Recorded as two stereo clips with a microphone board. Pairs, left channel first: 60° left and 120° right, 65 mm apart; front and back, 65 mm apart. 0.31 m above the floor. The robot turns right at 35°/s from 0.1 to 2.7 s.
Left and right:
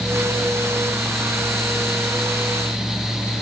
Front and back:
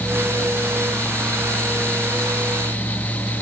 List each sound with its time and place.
Only background noise.